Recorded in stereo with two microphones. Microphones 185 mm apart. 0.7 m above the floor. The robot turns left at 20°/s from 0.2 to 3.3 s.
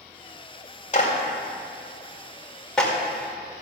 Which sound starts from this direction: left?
A clap, at 0.9 s.